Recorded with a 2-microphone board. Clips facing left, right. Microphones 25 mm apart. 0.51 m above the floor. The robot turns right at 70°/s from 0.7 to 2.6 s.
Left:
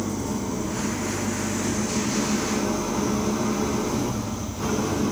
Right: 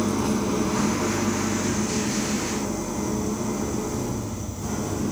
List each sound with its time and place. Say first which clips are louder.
0.0 s an engine running: right 4 dB; 80° right, 3 m; by 5.1 s 55° left, 3 m